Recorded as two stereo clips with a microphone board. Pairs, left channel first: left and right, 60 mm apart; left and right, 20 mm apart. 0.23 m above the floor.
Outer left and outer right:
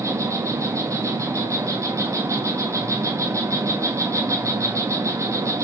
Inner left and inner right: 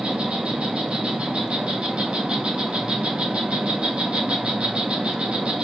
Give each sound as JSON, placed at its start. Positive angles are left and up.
{"t": 0.0, "sound": "an insect", "side_deg": -60, "distance_m": 1.6}